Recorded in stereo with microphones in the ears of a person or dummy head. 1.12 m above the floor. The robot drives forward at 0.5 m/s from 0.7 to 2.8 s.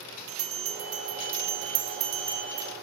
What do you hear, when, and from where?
0.3 s a bell: 35° right (ahead or behind), 1.0 m; by 2.7 s 50° right (ahead or behind), 0.7 m